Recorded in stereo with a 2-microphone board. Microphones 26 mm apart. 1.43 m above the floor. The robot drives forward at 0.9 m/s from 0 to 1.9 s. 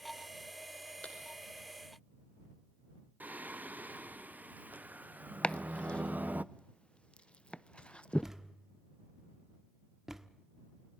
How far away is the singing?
About 0.6 m.